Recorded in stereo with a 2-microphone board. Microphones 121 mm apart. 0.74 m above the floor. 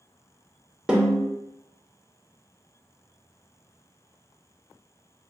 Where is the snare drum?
10° right (ahead or behind), 1.6 m.